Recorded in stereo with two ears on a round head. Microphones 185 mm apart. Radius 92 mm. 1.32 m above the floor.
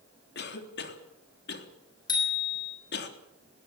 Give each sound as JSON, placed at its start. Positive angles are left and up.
{"t": 0.3, "sound": "a cough", "side_deg": 55, "distance_m": 3.5}
{"t": 2.1, "sound": "a bicycle bell", "side_deg": 20, "distance_m": 6.0}